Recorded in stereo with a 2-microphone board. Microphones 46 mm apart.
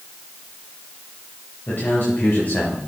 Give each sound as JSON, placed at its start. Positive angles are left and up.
{"t": 1.7, "sound": "a man speaking", "side_deg": 45, "distance_m": 2.5}